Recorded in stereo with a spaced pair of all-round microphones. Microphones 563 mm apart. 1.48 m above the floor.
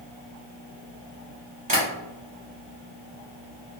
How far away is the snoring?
No snoring in this recording.